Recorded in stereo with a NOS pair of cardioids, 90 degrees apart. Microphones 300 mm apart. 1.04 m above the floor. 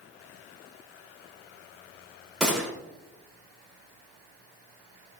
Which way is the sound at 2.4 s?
Straight ahead.